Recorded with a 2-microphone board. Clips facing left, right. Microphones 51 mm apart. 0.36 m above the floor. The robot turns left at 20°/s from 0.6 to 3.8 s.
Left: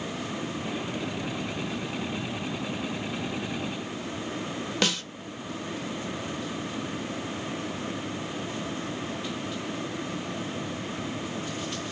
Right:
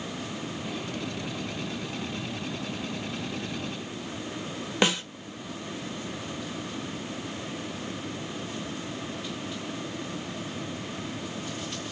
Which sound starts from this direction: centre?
A snare drum, at 4.8 s.